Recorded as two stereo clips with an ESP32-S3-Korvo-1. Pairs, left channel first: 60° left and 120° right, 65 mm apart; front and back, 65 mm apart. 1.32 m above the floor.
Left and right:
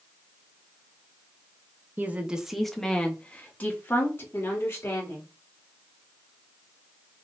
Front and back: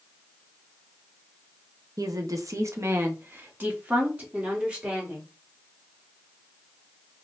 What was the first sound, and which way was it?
A woman speaking, 175° right.